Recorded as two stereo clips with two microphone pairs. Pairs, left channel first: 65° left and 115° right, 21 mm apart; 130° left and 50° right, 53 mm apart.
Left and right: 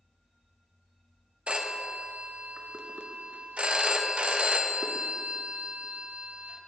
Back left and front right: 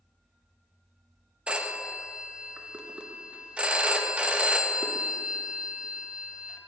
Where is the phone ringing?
120° right, 0.7 m.